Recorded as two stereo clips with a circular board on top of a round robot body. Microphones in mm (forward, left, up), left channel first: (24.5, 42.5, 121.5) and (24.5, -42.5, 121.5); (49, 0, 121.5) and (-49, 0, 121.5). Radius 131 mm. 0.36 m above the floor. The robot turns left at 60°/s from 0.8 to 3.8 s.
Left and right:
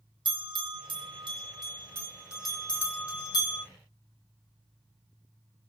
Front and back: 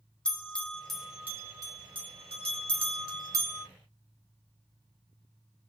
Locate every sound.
0.2 s a bell: 80° right, 1.7 m; by 3.6 s 110° left, 1.7 m